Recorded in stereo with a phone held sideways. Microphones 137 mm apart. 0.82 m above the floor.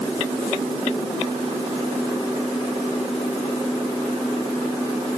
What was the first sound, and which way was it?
Only background noise.